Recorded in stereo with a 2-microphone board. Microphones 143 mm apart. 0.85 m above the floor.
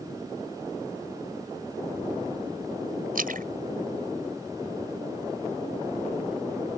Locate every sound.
3.1 s a splash: 80° right